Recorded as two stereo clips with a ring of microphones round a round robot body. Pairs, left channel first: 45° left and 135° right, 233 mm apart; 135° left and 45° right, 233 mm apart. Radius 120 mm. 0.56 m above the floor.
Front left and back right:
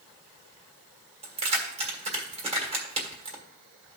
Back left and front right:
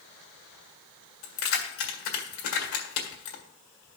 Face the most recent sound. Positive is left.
turn(degrees=160)